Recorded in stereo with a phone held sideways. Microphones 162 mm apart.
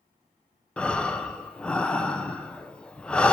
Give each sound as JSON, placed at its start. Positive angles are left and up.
{"t": 0.8, "sound": "breathing", "side_deg": 5, "distance_m": 0.5}